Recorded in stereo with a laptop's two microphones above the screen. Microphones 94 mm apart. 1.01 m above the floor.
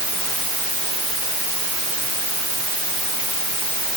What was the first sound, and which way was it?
Only background noise.